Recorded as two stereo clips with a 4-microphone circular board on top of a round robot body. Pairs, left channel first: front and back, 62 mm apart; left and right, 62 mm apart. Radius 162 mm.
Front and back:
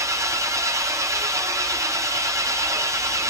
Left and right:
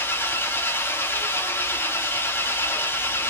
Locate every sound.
0.0 s an engine running: 145° left, 1.8 m